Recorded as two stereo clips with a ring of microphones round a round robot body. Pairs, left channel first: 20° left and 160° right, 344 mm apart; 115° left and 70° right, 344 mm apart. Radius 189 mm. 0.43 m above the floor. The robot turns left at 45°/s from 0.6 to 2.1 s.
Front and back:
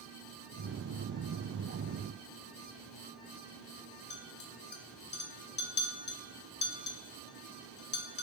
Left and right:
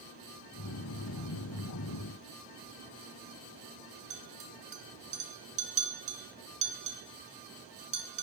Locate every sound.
4.1 s a clink: 15° right, 0.5 m